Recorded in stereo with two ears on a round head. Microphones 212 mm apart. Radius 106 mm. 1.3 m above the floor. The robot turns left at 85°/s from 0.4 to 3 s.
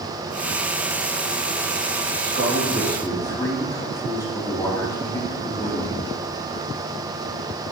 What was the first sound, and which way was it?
A man speaking, 130° right.